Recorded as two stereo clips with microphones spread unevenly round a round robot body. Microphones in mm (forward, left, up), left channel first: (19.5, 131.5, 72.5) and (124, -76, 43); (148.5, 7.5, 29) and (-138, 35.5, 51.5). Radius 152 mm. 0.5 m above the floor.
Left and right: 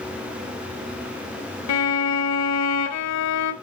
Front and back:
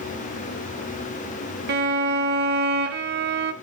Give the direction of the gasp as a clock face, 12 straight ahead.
I don't hear a gasp.